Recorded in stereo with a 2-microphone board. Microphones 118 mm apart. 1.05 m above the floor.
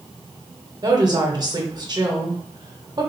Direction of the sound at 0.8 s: 35° right (ahead or behind).